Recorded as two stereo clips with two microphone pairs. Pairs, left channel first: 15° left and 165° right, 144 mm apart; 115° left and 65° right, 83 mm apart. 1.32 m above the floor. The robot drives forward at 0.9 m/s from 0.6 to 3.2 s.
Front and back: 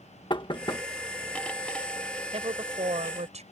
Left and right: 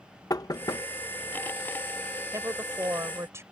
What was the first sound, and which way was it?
Knocking, 70° left.